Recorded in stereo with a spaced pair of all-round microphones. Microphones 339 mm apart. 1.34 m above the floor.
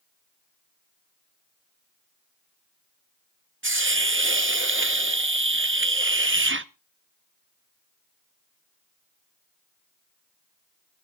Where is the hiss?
35° right (ahead or behind), 0.8 m.